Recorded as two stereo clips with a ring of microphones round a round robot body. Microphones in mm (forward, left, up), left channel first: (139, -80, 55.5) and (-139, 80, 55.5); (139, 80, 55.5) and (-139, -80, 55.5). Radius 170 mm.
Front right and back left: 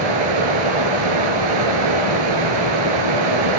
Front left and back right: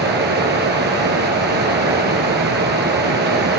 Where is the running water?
150° left, 2.5 m.